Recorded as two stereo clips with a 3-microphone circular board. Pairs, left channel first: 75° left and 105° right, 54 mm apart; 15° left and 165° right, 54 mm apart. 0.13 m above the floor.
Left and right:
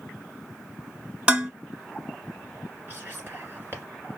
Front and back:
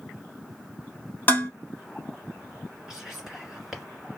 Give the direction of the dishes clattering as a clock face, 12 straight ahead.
1 o'clock.